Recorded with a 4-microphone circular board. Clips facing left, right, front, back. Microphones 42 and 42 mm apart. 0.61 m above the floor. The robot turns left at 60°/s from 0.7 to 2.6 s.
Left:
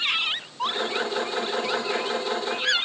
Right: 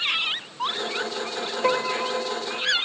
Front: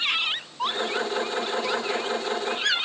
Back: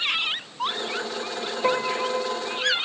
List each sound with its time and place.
1.6 s a piano: 130° right; by 2.7 s 175° left